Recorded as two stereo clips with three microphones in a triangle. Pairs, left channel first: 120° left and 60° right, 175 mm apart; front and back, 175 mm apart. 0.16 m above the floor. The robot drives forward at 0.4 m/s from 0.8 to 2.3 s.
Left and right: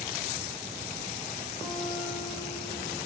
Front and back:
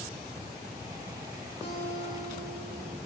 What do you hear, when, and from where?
1.6 s a guitar: 30° left, 4 m; by 3.0 s 35° left, 4 m